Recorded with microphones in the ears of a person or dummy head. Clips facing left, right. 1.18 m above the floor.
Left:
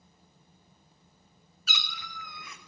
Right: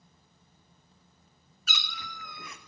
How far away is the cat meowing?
About 0.7 m.